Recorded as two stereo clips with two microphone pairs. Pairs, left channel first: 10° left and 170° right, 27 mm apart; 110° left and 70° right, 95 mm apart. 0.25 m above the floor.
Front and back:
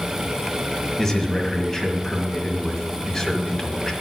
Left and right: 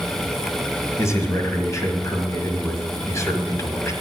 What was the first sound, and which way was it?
A man speaking, 75° left.